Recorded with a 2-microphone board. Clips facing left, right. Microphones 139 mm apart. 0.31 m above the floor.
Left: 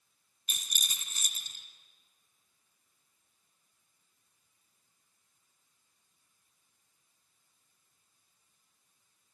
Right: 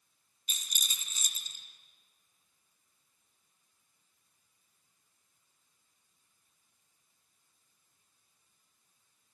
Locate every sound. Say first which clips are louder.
0.5 s a rattle: left 2 dB; 70° left (ahead or behind), 2.0 m